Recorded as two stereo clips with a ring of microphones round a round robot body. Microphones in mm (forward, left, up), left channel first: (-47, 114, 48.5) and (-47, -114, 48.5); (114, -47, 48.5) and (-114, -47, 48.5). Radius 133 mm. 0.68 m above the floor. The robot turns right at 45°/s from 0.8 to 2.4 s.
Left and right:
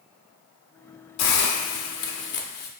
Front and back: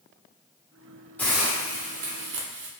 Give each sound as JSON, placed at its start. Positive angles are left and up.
{"t": 1.2, "sound": "a hiss", "azimuth_deg": 85, "distance_m": 0.6}